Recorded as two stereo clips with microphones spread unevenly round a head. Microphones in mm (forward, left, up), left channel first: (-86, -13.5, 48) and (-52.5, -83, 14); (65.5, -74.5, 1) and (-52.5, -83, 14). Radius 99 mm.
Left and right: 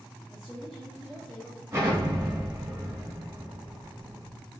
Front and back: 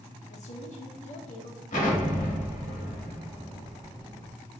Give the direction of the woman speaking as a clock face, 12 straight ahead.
12 o'clock.